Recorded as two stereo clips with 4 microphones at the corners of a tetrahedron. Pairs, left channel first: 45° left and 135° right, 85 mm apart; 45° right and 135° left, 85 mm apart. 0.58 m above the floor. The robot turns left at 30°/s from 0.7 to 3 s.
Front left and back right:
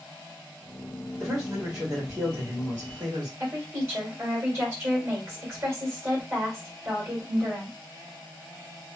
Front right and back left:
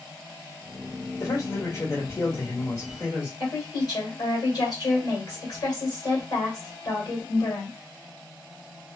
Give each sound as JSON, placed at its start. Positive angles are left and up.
{"t": 1.2, "sound": "a man speaking", "azimuth_deg": -50, "distance_m": 1.7}
{"t": 3.4, "sound": "a woman speaking", "azimuth_deg": -80, "distance_m": 1.7}